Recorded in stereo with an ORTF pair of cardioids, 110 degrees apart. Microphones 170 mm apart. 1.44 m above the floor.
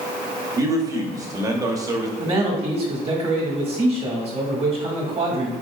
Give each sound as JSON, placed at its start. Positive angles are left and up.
{"t": 0.6, "sound": "a man speaking", "azimuth_deg": -20, "distance_m": 0.8}
{"t": 2.2, "sound": "a man speaking", "azimuth_deg": -35, "distance_m": 1.2}